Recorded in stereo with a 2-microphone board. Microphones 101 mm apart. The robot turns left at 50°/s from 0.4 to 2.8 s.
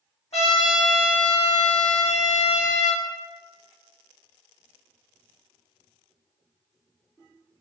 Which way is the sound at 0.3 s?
90° left.